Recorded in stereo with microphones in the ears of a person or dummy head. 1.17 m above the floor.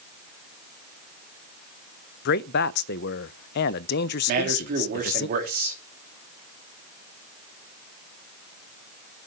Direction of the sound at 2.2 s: 60° left (ahead or behind).